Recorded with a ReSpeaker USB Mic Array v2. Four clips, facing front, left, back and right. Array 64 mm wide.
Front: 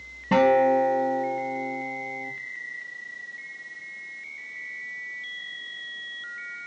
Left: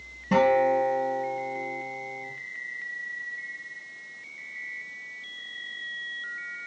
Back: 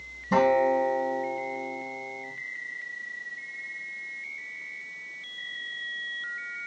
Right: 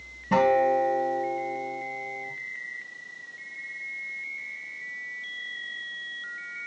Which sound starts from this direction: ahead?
A guitar, at 0.3 s.